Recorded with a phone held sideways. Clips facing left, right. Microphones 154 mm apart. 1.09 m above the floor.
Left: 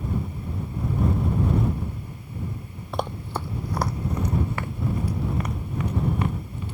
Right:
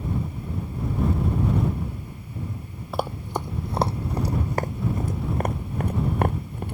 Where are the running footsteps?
5° right (ahead or behind); by 6.8 s 55° right (ahead or behind).